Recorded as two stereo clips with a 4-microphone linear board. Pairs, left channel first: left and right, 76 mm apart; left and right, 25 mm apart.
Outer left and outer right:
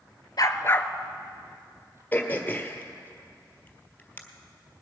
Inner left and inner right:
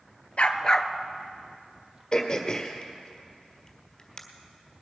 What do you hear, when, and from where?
0.4 s a dog barking: 55° left (ahead or behind), 0.8 m; by 2.0 s 35° right (ahead or behind), 1.5 m
2.1 s throat clearing: 25° left (ahead or behind), 1.5 m